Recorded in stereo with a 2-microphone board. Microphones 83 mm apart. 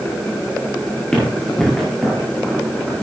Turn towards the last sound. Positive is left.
turn(degrees=-15)  # may be behind; listen again after turning